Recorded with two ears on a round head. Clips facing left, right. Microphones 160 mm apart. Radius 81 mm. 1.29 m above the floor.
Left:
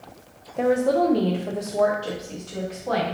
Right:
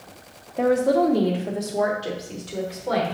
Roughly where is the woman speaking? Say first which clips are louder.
Right 1 dB; centre.